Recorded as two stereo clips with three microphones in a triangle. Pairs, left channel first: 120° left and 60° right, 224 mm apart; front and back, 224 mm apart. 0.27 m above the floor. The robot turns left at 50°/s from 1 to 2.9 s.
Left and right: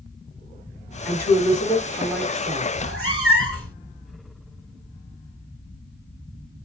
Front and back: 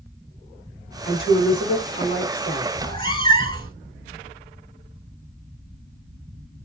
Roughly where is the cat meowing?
Ahead right.